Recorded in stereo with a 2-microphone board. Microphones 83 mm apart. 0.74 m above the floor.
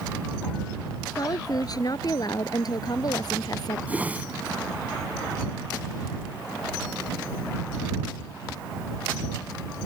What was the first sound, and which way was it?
A woman speaking, 50° left (ahead or behind).